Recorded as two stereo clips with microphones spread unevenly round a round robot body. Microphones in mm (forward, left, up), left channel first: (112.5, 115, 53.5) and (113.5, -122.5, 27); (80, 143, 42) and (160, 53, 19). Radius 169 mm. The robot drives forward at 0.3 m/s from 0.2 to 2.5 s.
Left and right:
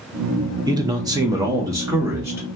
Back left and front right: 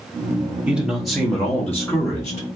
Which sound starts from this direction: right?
A man speaking, at 0.7 s.